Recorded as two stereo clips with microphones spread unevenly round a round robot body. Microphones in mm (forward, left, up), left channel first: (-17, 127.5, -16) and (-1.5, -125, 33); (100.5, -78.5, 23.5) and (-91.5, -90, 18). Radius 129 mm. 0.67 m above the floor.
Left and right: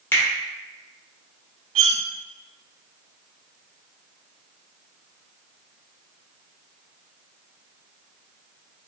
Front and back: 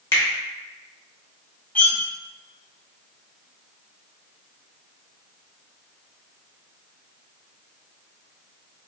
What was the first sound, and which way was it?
A finger snap, 65° left.